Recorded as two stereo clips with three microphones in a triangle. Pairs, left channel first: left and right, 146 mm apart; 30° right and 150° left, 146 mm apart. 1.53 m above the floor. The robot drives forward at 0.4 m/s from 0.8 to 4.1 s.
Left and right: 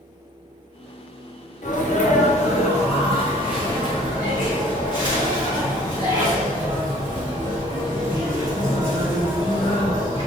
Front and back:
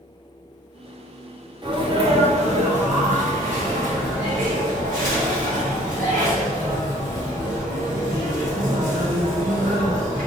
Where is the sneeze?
100° left, 0.8 m; by 10.3 s 145° left, 1.3 m.